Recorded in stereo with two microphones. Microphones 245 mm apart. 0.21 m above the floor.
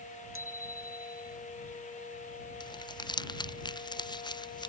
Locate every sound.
0.3 s a bicycle bell: 55° right (ahead or behind); by 1.4 s 50° right (ahead or behind)
2.6 s crumpling: 15° left (ahead or behind)